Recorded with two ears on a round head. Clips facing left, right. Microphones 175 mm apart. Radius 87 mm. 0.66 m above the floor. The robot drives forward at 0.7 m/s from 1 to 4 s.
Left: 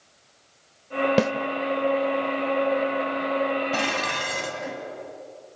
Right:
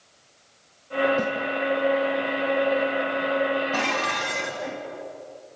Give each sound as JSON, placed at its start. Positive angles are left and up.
{"t": 1.2, "sound": "a snare drum", "side_deg": 80, "distance_m": 1.0}
{"t": 3.7, "sound": "dishes clattering", "side_deg": 45, "distance_m": 3.5}